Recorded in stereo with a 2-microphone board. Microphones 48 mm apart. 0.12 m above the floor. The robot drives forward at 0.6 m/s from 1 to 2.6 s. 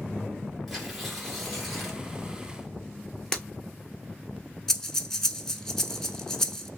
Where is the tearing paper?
Centre (ahead or behind), 2.5 m.